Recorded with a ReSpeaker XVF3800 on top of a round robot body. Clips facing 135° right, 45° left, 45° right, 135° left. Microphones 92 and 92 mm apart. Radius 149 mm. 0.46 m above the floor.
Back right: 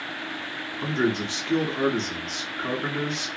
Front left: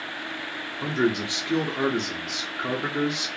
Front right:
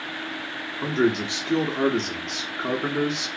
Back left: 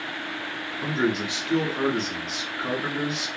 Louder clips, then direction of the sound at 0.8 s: Front left 1 dB, front right 3 dB; 15° right.